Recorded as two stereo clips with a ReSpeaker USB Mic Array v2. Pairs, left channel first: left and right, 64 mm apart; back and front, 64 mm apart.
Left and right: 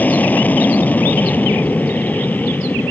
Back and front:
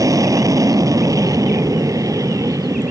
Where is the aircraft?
25° left.